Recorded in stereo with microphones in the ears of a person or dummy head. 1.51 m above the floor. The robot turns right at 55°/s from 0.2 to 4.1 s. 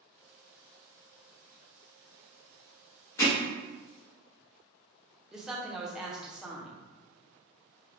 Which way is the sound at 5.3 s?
Centre (ahead or behind).